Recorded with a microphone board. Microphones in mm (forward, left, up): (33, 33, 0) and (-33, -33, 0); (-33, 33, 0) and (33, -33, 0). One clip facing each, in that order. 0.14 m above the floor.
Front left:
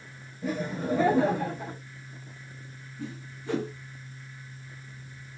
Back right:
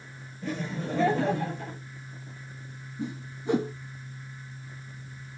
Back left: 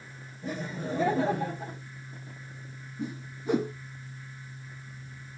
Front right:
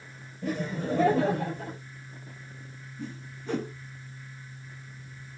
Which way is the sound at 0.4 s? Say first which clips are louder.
Front left 3 dB, front right 4 dB; 35° right.